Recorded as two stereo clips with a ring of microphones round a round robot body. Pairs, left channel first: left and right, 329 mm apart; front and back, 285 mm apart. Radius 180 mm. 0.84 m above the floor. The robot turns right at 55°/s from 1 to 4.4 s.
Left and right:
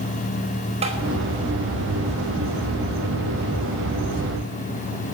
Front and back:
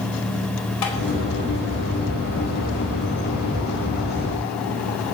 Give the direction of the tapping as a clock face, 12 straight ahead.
1 o'clock.